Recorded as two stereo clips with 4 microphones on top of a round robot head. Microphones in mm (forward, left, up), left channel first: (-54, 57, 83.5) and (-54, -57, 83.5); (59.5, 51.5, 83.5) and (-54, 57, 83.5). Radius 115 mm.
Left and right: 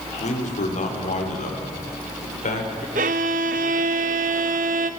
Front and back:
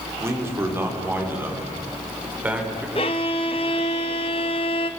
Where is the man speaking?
110° left, 4.5 m; by 2.9 s 100° left, 5.5 m.